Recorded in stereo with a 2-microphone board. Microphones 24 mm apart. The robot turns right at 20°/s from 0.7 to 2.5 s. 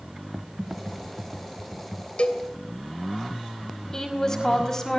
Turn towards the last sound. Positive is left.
turn(degrees=25)  # may be behind; listen again after turning